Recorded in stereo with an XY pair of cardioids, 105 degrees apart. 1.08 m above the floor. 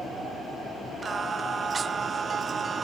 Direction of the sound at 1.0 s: 35° right.